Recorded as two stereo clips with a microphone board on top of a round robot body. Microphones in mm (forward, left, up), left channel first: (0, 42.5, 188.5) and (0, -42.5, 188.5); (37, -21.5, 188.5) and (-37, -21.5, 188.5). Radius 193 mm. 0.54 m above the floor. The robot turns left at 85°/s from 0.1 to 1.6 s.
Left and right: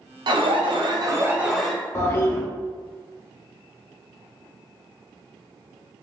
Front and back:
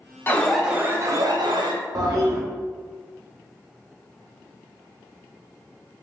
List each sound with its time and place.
0.3 s an alarm: 65° right, 0.7 m; by 1.8 s straight behind, 0.7 m
1.9 s a toilet flushing: 150° left, 0.9 m